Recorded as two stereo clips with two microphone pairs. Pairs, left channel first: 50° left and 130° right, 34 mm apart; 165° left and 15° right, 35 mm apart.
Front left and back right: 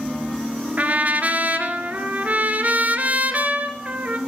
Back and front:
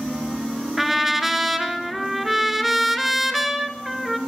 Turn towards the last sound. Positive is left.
turn(degrees=-100)